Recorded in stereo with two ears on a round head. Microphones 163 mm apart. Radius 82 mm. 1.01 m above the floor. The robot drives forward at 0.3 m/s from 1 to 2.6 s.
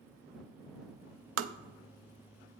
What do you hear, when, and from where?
1.4 s tapping: 80° right, 0.6 m